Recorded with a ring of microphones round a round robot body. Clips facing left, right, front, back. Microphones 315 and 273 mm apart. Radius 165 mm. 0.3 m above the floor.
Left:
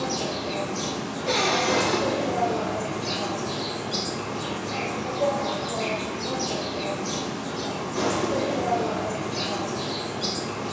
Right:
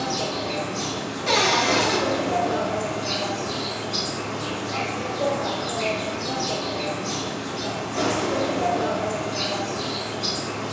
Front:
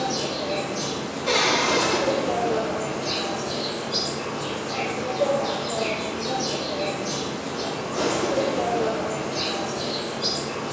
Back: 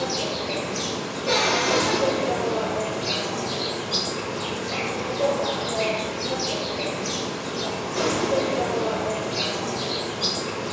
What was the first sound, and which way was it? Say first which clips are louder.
An insect: right 1 dB, even; 155° left.